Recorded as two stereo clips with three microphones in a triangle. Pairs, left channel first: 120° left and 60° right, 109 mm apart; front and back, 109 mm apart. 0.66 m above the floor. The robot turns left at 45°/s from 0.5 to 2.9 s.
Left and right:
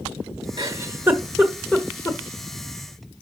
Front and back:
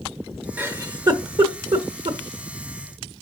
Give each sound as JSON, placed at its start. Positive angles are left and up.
{"t": 0.6, "sound": "a giggle", "azimuth_deg": -110, "distance_m": 1.0}